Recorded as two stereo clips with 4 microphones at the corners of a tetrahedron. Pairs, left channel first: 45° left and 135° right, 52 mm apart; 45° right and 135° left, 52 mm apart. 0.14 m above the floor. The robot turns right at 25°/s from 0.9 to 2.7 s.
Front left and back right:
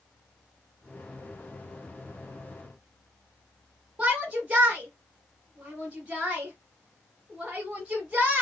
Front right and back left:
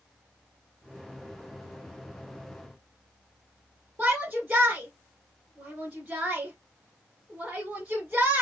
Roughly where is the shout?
Behind.